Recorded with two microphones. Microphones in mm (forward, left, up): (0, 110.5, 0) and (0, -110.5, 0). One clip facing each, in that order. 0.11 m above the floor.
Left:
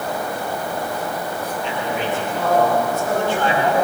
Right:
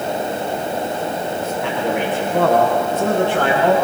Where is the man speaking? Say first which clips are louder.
Right 4 dB; 75° right (ahead or behind), 9.5 m; by 3.7 s 80° right, 11.5 m.